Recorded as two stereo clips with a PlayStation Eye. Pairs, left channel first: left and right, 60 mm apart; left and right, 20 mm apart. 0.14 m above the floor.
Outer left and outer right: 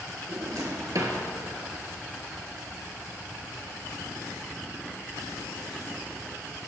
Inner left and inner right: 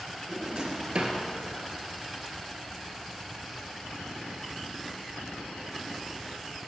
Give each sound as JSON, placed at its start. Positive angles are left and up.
{"t": 0.3, "sound": "a drawer", "side_deg": -65, "distance_m": 1.7}